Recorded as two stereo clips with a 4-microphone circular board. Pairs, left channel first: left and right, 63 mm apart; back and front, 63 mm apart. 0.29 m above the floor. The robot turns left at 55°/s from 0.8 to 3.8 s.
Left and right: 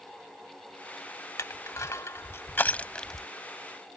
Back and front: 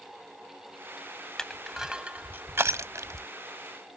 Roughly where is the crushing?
Left.